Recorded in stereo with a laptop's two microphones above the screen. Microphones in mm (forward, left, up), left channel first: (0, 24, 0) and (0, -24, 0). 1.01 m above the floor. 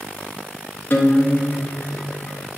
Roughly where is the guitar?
Left.